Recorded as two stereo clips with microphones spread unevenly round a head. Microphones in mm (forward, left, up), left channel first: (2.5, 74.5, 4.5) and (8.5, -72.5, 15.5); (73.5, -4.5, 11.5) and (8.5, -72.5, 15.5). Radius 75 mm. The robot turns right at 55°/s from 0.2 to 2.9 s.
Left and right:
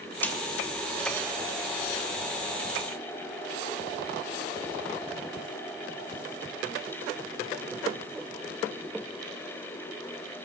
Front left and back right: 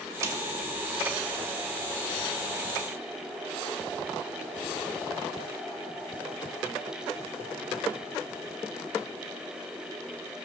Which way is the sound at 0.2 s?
170° left.